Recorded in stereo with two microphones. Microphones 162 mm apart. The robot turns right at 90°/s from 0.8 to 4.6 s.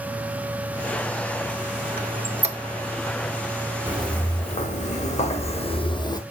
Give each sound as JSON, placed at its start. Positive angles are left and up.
{"t": 2.0, "sound": "a squeak", "side_deg": -75, "distance_m": 0.7}
{"t": 3.9, "sound": "footsteps", "side_deg": -15, "distance_m": 3.0}